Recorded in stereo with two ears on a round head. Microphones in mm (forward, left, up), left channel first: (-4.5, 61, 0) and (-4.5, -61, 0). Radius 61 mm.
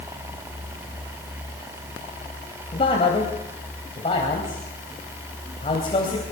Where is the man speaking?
40° left (ahead or behind), 3.5 m.